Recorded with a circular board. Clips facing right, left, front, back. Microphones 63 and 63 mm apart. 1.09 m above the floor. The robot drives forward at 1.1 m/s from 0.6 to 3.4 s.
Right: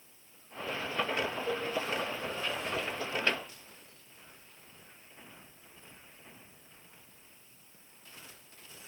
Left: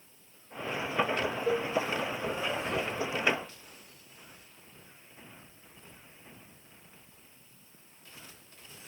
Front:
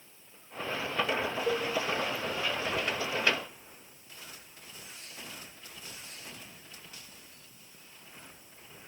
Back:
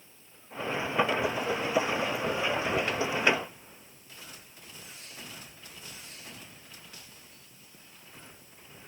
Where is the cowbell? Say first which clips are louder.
Left 5 dB, front 1 dB; 60° left, 0.9 m; by 1.7 s 75° left, 0.8 m.